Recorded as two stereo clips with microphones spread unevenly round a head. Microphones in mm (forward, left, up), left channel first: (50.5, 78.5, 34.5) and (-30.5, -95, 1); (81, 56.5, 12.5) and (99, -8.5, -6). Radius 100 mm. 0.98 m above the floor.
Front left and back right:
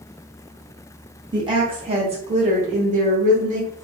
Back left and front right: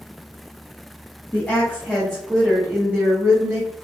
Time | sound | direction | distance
1.3 | a woman speaking | 175° right | 1.3 m